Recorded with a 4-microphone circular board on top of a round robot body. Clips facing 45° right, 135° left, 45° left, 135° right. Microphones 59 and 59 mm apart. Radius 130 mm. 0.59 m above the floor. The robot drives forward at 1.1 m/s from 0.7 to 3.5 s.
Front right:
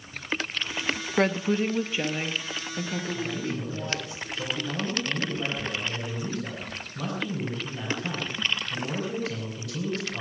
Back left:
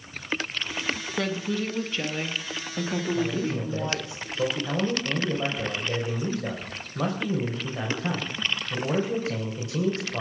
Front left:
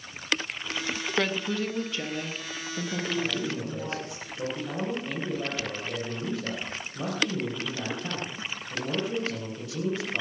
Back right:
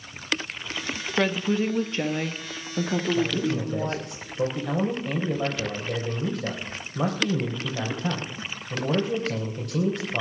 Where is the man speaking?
165° right, 3 m.